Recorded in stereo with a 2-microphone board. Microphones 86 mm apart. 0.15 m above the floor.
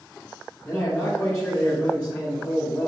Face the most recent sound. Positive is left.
turn(degrees=10)  # may be behind; listen again after turning